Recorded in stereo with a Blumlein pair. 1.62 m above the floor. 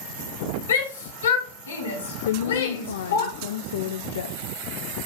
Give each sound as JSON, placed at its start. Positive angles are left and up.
{"t": 0.7, "sound": "a shout", "azimuth_deg": 65, "distance_m": 3.0}
{"t": 2.2, "sound": "a woman speaking", "azimuth_deg": 60, "distance_m": 0.6}